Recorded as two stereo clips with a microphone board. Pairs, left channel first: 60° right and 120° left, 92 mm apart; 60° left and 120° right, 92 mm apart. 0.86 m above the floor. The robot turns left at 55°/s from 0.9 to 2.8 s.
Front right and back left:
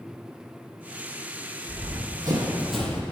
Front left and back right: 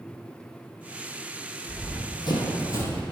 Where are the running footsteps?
125° left, 2 m; by 3.0 s straight ahead, 1.1 m.